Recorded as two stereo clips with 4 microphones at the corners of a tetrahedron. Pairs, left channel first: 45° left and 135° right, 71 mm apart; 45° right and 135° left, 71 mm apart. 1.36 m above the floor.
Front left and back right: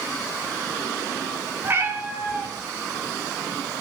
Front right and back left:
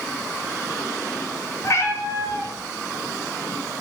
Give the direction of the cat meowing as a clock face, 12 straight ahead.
3 o'clock.